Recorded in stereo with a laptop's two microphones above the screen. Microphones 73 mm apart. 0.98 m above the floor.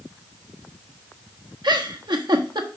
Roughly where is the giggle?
Right.